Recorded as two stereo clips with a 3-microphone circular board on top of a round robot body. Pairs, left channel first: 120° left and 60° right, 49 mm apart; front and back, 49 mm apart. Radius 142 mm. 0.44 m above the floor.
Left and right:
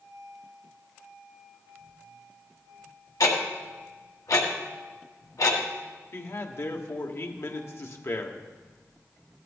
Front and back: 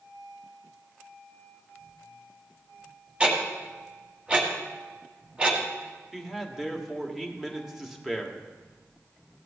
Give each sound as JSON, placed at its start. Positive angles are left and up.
{"t": 3.2, "sound": "ticking", "azimuth_deg": 105, "distance_m": 1.7}
{"t": 6.1, "sound": "a man speaking", "azimuth_deg": 95, "distance_m": 1.5}